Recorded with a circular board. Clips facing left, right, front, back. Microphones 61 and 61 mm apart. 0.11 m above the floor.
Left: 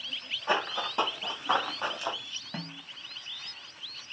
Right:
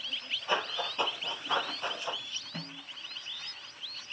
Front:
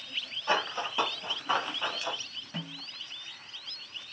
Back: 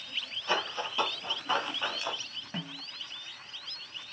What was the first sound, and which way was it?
Running footsteps, 65° left.